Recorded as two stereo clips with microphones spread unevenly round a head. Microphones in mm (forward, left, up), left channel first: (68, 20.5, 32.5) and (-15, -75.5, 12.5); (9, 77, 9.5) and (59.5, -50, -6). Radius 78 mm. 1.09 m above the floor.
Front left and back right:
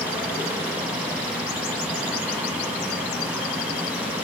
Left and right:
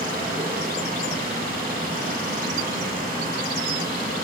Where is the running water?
50° right, 7 m.